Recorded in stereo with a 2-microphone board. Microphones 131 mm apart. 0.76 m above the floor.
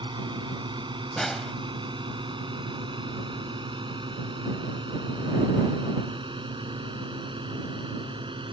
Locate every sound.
0.0 s a drone: 35° right (ahead or behind); by 8.5 s 40° right (ahead or behind)
1.2 s a snare drum: 5° left (ahead or behind)